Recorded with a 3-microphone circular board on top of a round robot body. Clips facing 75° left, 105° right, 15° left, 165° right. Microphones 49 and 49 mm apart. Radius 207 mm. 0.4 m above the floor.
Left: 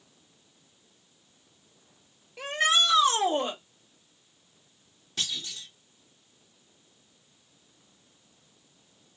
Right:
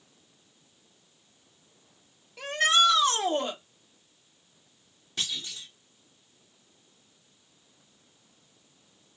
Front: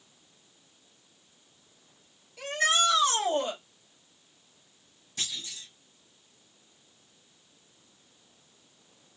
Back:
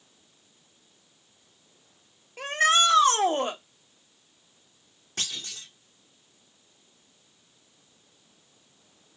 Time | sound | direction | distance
2.4 | a shout | 150° left | 2 m
5.2 | a clunk | 170° left | 2 m